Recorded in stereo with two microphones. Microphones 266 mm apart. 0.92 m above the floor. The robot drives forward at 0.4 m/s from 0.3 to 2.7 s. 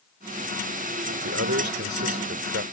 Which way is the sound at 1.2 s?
55° right (ahead or behind).